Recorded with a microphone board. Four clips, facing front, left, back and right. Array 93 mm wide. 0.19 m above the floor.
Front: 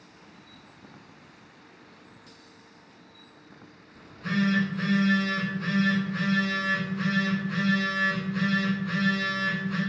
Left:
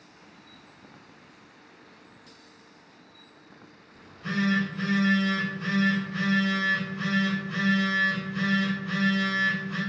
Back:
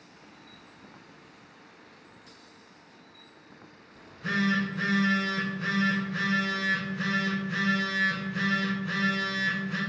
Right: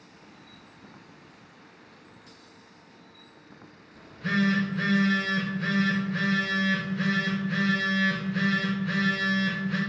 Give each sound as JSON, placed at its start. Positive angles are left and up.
{"t": 3.9, "sound": "a phone buzzing", "azimuth_deg": -110, "distance_m": 1.1}